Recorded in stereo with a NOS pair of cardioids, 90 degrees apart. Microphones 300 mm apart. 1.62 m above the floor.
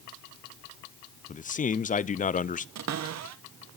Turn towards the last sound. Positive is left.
turn(degrees=-60)